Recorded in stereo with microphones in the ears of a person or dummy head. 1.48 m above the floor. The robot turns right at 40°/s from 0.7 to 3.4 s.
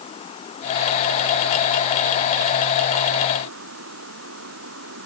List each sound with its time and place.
0.0 s running water: 145° left; by 5.1 s 110° right